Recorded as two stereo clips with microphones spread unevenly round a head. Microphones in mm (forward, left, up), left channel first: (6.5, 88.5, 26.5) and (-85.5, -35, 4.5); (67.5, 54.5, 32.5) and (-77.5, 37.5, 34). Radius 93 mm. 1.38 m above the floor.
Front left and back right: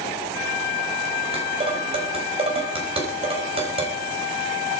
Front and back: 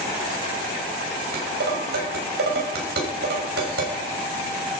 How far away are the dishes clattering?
About 5 m.